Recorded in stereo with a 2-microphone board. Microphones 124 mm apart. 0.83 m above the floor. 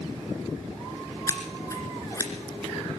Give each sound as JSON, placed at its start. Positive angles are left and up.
{"t": 1.3, "sound": "scissors", "side_deg": 25, "distance_m": 2.0}